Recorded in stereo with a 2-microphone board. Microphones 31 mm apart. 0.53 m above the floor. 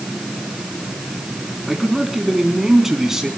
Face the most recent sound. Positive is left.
turn(degrees=-15)  # may be behind; listen again after turning